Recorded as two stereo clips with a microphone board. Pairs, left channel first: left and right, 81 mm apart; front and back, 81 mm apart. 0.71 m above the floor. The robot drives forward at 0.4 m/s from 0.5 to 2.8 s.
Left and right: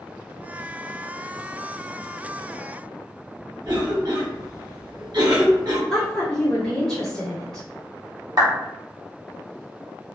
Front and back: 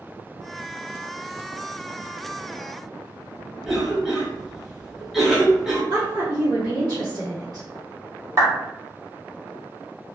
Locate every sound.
3.6 s a cough: 95° right, 0.9 m
5.9 s a woman speaking: 170° left, 1.7 m
8.4 s a clap: 130° right, 1.1 m